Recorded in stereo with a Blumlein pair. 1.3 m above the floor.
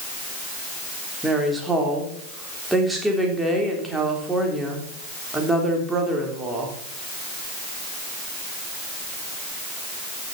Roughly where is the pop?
I don't hear a pop.